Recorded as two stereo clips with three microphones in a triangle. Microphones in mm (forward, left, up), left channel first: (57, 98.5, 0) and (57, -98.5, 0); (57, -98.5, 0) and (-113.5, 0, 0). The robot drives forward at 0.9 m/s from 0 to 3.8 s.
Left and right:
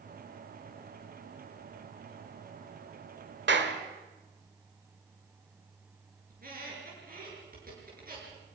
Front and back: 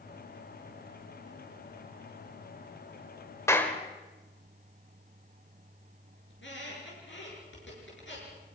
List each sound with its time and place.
3.5 s a clap: 105° right, 1.6 m; by 3.8 s 115° right, 1.7 m
6.3 s a squeak: 50° right, 7 m